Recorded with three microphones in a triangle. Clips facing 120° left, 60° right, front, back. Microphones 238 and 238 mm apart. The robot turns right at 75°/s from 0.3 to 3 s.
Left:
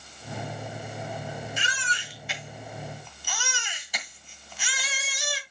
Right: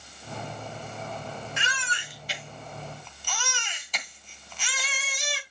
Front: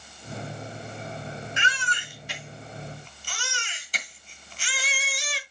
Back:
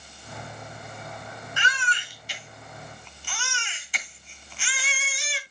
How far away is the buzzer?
No buzzer in this recording.